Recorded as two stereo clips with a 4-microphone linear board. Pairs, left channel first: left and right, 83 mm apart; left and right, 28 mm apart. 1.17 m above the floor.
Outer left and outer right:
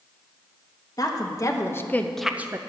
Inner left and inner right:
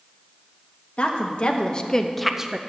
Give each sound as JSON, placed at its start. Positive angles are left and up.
{"t": 1.0, "sound": "a woman speaking", "side_deg": 50, "distance_m": 1.4}